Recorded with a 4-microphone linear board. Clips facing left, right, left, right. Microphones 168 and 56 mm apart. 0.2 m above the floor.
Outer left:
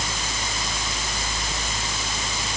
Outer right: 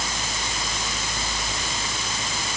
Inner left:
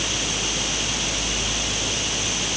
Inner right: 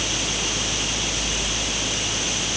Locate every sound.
Only background noise.